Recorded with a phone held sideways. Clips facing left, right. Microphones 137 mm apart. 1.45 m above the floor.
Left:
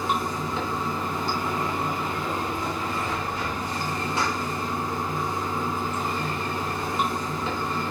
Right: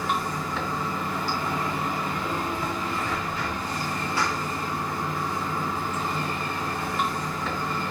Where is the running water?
25° left (ahead or behind), 3 m.